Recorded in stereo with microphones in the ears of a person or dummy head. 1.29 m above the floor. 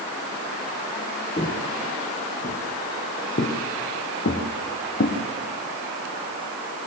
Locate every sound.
1.4 s footsteps: 25° left (ahead or behind), 3.5 m; by 5.2 s 60° left (ahead or behind), 4.5 m